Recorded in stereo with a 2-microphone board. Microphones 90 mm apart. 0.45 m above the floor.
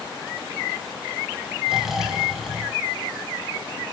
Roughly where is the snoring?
Centre.